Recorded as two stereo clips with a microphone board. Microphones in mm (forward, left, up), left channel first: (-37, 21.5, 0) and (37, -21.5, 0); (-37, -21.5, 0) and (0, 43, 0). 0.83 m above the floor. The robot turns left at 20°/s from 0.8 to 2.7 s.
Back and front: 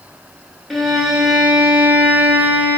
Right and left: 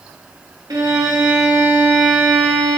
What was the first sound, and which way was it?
A violin, 60° left.